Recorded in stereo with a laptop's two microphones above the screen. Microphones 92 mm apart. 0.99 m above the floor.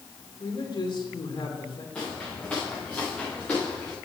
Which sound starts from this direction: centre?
Footsteps, at 1.9 s.